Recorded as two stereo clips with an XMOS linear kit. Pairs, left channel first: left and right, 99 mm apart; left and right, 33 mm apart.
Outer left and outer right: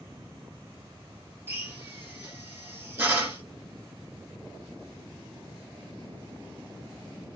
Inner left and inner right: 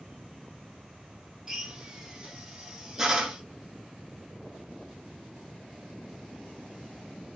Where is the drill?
25° right (ahead or behind), 0.9 m.